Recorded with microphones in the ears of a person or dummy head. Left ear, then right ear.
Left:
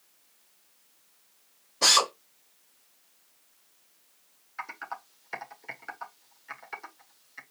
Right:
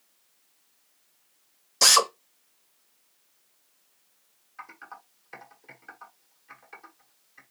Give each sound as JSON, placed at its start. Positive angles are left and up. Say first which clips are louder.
{"t": 1.8, "sound": "a drill", "louder": "right 2 dB", "side_deg": -70, "distance_m": 1.3}
{"t": 4.6, "sound": "typing on a keyboard", "louder": "left 6 dB", "side_deg": 25, "distance_m": 1.3}